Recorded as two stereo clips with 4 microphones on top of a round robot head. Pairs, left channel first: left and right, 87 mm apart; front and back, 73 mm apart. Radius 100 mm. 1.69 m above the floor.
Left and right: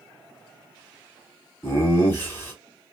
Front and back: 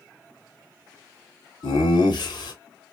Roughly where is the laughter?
Ahead.